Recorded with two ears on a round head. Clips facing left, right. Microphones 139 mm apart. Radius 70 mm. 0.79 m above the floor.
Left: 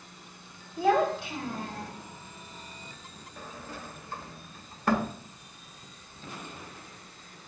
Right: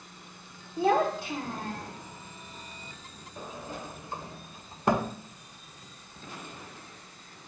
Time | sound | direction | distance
0.8 | a child speaking | 25° right (ahead or behind) | 2 m
3.4 | a sliding door | 15° right (ahead or behind) | 0.5 m